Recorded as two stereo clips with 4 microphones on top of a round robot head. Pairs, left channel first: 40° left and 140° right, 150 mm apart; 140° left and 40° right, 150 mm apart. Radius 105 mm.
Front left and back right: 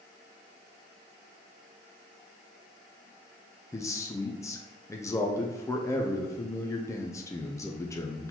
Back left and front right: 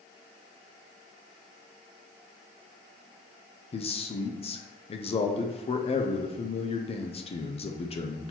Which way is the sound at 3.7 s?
105° left.